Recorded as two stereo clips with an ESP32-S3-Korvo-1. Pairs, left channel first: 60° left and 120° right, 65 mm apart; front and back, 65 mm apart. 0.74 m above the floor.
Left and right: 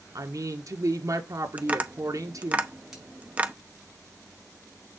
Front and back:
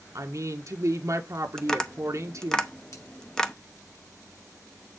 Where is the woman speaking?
145° right, 1.6 m.